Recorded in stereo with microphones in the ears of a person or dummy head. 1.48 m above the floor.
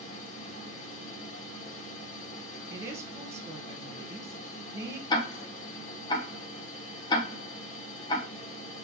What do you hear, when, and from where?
0.0 s a fan: 45° left (ahead or behind), 1.2 m
2.7 s a woman speaking: 15° right (ahead or behind), 1.0 m
5.1 s ticking: 30° left (ahead or behind), 0.8 m